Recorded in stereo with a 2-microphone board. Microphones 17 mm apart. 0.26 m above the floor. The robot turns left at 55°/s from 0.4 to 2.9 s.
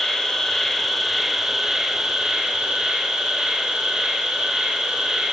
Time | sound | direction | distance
0.0 | an insect | 40° left | 2.5 m